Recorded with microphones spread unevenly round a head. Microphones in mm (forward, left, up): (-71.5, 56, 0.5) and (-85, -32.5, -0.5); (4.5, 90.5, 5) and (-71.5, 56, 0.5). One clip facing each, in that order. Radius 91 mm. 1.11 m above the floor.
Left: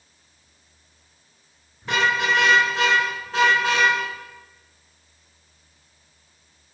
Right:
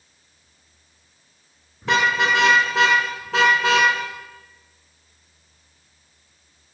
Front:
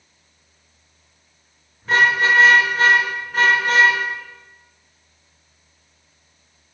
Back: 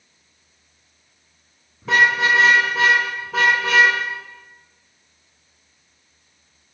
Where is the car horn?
100° right, 9 m; by 3.9 s 95° right, 7.5 m.